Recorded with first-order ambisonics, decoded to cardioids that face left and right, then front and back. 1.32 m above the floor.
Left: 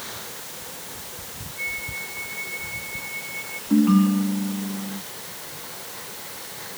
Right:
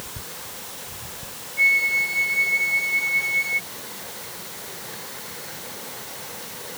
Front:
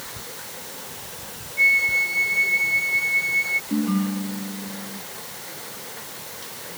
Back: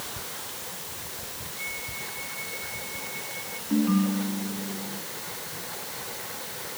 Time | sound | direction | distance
1.6 | a flute | 35° right | ?
3.7 | a ringtone | 90° left | ?